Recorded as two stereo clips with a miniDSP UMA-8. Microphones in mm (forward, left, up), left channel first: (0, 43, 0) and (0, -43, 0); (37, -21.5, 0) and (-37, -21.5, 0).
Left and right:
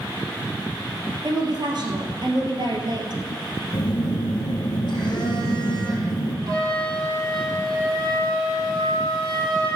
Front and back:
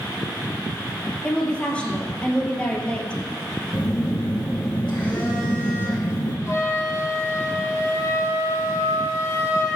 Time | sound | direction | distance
1.2 | a woman speaking | 75° right | 2.5 m
3.7 | a phone buzzing | 70° left | 3 m
6.5 | a flute | 50° right | 4.5 m